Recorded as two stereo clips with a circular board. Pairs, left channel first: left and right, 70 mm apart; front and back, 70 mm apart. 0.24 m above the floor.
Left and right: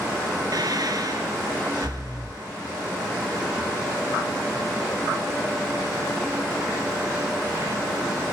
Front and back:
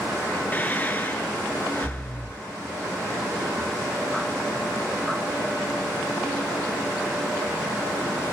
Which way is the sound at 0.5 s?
65° right.